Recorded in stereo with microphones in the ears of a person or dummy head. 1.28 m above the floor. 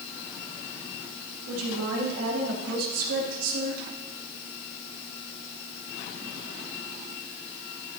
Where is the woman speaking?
85° right, 3.5 m; by 3.8 s 70° right (ahead or behind), 2.5 m.